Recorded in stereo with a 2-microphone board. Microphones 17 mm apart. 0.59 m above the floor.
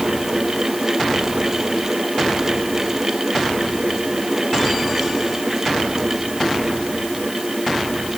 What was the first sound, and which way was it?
Only background noise.